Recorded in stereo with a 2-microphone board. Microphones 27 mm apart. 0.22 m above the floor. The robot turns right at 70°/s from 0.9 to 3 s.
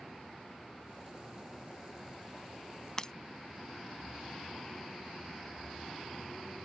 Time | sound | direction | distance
3.0 | breaking glass | 20° left (ahead or behind) | ?